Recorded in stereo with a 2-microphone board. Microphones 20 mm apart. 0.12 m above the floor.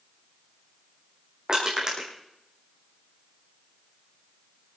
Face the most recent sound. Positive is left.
turn(degrees=-35)  # may be behind; listen again after turning